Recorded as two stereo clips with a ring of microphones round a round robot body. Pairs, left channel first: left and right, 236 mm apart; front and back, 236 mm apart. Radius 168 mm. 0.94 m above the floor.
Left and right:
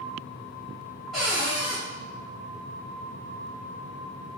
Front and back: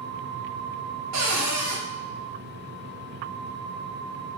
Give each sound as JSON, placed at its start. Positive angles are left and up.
{"t": 1.1, "sound": "a cupboard door", "azimuth_deg": 180, "distance_m": 0.8}